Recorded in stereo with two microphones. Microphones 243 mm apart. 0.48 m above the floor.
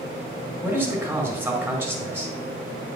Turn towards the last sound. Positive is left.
turn(degrees=-10)  # may be behind; listen again after turning